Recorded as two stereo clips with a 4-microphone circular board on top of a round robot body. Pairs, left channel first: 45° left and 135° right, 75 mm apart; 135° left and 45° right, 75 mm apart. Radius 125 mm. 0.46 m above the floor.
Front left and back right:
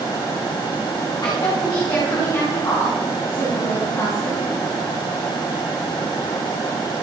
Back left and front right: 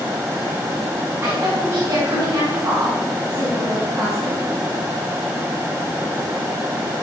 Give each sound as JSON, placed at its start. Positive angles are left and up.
{"t": 1.2, "sound": "a woman speaking", "azimuth_deg": 15, "distance_m": 5.0}